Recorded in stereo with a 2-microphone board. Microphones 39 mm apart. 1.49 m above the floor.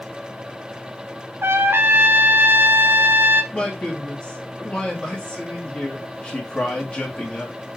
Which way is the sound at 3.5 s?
30° left (ahead or behind).